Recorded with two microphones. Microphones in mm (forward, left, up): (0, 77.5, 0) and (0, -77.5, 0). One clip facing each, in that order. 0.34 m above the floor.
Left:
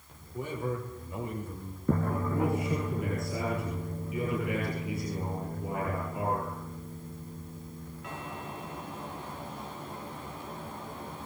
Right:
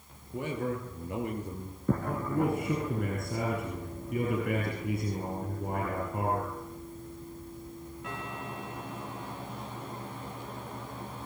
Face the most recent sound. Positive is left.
turn(degrees=-55)  # may be behind; listen again after turning